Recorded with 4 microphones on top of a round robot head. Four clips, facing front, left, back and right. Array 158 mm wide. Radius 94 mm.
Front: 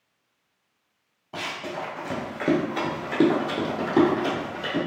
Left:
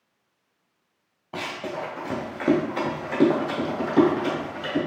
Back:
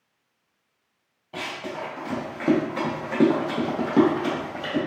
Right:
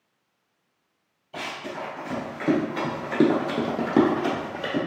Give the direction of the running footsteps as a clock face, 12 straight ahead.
9 o'clock.